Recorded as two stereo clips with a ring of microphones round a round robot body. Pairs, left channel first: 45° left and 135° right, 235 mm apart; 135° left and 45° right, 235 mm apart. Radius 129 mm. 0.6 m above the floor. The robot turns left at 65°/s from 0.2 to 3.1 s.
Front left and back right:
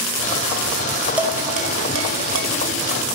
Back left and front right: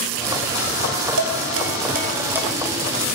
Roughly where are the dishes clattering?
Ahead right.